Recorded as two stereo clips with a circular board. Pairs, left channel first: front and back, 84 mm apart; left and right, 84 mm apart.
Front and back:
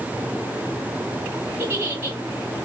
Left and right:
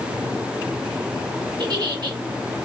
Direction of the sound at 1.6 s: 120° right.